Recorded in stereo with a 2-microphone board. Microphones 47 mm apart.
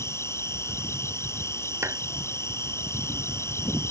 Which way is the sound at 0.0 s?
75° left (ahead or behind).